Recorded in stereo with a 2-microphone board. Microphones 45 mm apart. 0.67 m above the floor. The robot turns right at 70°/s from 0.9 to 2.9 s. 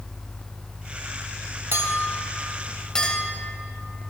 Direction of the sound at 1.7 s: 65° right (ahead or behind).